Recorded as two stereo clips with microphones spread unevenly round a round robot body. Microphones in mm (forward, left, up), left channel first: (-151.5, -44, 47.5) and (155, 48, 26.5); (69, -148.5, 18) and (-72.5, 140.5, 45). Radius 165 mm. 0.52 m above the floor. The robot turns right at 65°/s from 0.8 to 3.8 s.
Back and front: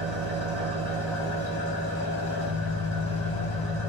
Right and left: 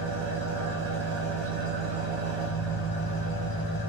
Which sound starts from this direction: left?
An engine running, at 0.0 s.